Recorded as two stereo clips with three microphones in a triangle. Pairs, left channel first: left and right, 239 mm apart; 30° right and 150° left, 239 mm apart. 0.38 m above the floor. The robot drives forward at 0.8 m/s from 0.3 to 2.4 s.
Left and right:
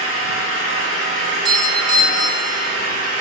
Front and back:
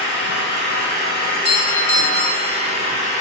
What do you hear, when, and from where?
0.0 s an engine running: 70° right, 4.5 m; by 3.2 s 90° right, 4 m
1.2 s a doorbell: 20° right, 1.9 m; by 2.8 s 55° right, 1.5 m